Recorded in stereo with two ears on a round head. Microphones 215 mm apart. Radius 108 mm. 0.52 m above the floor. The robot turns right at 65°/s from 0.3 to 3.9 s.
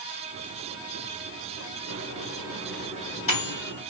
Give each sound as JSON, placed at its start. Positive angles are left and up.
{"t": 1.9, "sound": "a microwave", "side_deg": -65, "distance_m": 4.5}